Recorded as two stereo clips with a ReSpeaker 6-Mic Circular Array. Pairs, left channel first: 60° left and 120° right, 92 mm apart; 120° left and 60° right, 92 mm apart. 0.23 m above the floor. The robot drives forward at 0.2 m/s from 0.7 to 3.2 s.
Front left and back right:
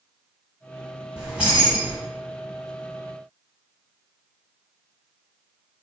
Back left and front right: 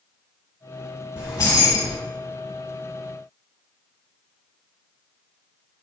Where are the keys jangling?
160° left, 1.2 m; by 2.0 s 165° left, 1.3 m.